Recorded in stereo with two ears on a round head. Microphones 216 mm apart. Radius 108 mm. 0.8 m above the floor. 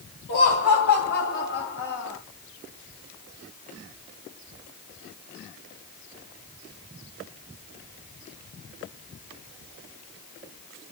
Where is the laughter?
50° left (ahead or behind), 3.5 m; by 2.2 s 60° left (ahead or behind), 3 m.